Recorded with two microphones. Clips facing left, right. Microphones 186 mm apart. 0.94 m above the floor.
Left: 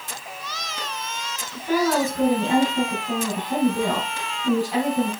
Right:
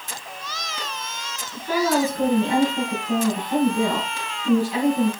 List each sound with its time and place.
1.5 s a woman speaking: 40° left (ahead or behind), 5 m